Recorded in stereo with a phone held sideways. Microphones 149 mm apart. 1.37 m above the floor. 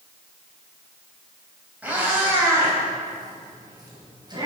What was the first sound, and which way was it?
A cat meowing, 10° right (ahead or behind).